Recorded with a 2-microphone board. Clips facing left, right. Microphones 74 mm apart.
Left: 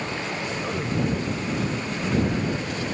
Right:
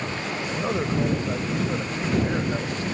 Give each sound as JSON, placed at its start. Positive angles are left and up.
{"t": 0.5, "sound": "a man speaking", "side_deg": -20}